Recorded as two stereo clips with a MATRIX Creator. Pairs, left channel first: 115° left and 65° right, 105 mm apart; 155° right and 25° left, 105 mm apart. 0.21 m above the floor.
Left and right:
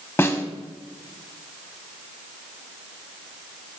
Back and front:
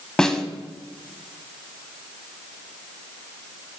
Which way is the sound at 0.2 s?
130° left.